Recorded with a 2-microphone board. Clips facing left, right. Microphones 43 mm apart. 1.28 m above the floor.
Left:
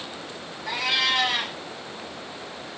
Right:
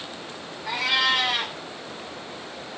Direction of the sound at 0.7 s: 5° left (ahead or behind).